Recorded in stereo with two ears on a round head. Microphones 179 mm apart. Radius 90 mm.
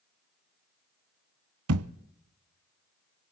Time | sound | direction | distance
1.7 | a thud | 85° right | 0.9 m